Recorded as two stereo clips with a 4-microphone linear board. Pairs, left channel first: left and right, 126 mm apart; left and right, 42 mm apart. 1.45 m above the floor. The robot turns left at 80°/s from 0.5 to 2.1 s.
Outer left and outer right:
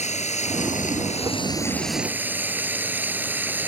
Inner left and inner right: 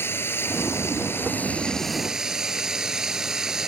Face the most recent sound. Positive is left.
turn(degrees=-15)